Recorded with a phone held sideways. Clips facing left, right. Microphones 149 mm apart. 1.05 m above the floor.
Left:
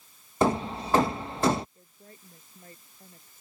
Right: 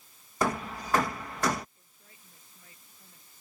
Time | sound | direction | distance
0.4 | hammering | 30° left (ahead or behind) | ?
1.8 | a woman speaking | 50° left (ahead or behind) | ?